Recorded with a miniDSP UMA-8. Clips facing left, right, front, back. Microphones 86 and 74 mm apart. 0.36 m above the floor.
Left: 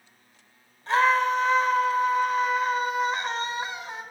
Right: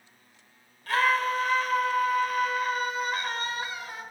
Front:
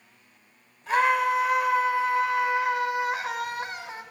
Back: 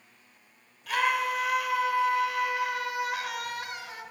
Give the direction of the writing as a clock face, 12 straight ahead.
I don't hear writing.